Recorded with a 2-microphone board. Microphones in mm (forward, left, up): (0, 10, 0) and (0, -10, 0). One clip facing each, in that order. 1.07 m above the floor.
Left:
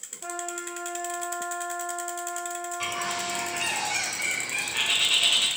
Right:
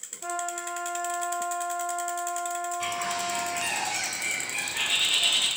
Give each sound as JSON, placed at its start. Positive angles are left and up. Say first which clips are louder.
{"t": 0.2, "sound": "a trumpet", "louder": "right 2 dB", "side_deg": -5, "distance_m": 1.2}
{"t": 2.8, "sound": "a bird", "louder": "left 3 dB", "side_deg": 45, "distance_m": 1.4}